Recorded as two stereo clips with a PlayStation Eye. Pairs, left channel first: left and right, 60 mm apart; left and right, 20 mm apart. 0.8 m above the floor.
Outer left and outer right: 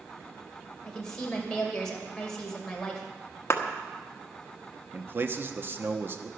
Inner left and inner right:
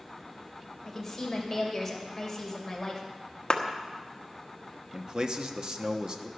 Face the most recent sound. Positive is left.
turn(degrees=-40)  # may be behind; listen again after turning